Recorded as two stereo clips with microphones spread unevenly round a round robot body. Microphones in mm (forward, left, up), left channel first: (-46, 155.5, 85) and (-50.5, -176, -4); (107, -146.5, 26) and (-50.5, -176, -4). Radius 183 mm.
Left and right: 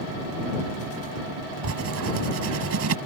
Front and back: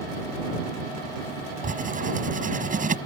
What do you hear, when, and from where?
1.6 s writing: 135° right